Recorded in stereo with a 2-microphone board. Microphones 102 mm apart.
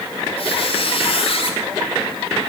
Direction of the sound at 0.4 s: 65° left (ahead or behind).